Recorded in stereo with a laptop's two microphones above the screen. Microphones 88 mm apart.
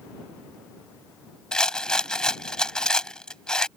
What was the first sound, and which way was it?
A rattle, 10° left (ahead or behind).